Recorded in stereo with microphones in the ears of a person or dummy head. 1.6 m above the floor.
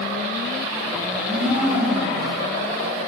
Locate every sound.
1.1 s a blender: centre (ahead or behind), 7.5 m